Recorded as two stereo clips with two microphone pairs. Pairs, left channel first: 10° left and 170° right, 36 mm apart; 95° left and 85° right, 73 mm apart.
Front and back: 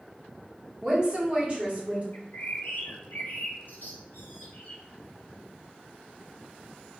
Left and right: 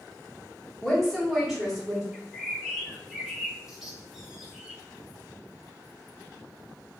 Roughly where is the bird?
Ahead.